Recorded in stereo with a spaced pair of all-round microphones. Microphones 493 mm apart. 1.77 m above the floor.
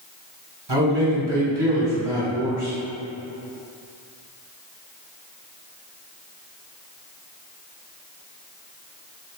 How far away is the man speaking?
About 1.3 m.